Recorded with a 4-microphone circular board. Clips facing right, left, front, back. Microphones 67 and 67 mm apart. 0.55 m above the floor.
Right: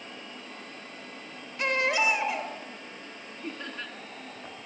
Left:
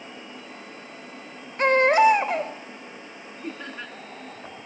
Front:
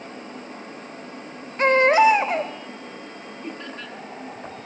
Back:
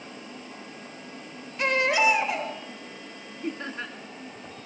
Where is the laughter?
155° left, 1.1 m.